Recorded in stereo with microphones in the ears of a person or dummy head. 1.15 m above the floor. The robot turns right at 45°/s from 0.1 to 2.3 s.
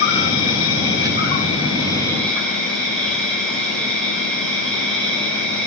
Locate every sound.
0.0 s an insect: 75° left, 1.4 m; by 5.7 s 175° left, 1.4 m